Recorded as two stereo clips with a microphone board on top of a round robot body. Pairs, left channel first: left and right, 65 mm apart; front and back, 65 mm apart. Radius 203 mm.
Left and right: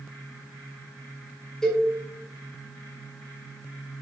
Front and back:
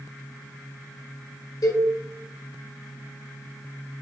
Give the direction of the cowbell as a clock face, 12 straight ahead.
12 o'clock.